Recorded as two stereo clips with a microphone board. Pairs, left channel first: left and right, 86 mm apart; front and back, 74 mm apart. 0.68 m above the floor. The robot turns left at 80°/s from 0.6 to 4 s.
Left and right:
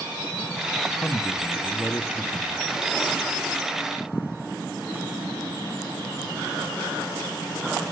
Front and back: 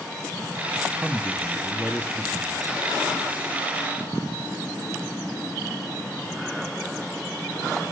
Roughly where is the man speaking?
Behind left.